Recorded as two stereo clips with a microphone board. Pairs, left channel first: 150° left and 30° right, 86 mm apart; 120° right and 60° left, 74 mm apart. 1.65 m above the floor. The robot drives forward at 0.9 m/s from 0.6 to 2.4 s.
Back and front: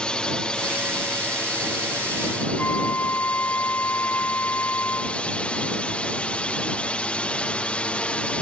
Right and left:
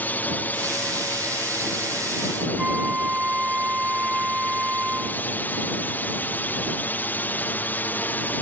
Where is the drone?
145° right; by 8.4 s 150° right.